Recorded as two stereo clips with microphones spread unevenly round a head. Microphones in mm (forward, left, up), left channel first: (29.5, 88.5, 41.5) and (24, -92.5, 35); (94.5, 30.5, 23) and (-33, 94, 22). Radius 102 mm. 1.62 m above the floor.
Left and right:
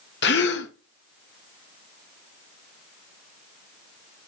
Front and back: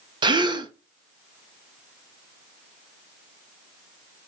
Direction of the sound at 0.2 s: 100° left.